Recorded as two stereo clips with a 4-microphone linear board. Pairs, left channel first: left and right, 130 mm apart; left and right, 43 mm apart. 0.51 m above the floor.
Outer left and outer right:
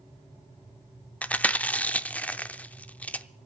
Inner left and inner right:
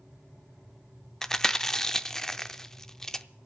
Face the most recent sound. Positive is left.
turn(degrees=10)  # may be behind; listen again after turning